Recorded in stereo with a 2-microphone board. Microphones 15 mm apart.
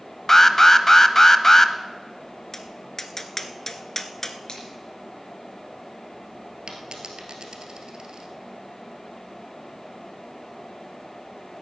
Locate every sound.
0.3 s an alarm: 25° left (ahead or behind), 0.7 m
2.5 s tapping: 25° left (ahead or behind), 0.8 m
4.5 s a finger snap: 55° left (ahead or behind), 3.5 m
6.7 s a dropped coin: 70° right (ahead or behind), 1.8 m